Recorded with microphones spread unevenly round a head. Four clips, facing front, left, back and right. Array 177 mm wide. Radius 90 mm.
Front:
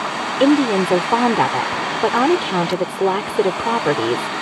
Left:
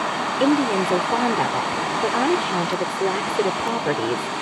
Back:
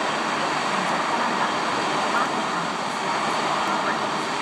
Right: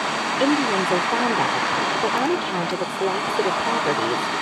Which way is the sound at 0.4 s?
5° left.